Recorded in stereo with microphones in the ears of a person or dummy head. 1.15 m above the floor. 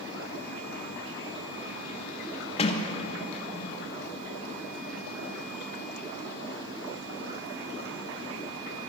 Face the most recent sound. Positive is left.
turn(degrees=35)  # may be behind; listen again after turning